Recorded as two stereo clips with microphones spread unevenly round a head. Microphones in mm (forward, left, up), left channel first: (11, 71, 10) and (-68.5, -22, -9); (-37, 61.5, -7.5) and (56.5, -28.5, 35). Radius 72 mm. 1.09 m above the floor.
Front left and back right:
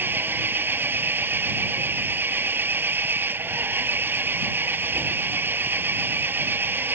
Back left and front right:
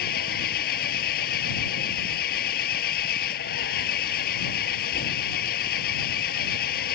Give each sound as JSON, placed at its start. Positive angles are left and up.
{"t": 0.0, "sound": "an engine running", "azimuth_deg": 155}